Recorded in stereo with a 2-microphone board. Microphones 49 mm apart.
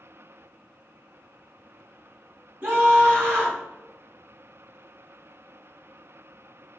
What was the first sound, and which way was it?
A scream, 45° right (ahead or behind).